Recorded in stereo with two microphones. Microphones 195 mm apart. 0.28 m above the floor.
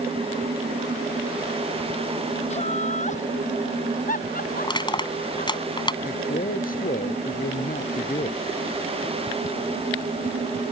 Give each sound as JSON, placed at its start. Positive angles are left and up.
{"t": 2.5, "sound": "laughter", "side_deg": 30}
{"t": 4.6, "sound": "crushing", "side_deg": 20}
{"t": 6.0, "sound": "a man speaking", "side_deg": 45}